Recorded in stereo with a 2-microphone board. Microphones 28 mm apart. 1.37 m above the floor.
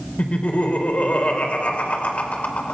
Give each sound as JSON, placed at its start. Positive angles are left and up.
{"t": 0.2, "sound": "laughter", "side_deg": 65, "distance_m": 4.5}